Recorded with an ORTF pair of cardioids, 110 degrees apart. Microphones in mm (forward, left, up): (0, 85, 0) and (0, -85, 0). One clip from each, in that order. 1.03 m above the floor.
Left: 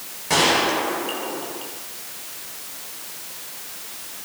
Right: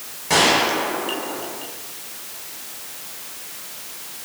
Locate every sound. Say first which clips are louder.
0.3 s a gunshot: right 2 dB; 5° right, 9 m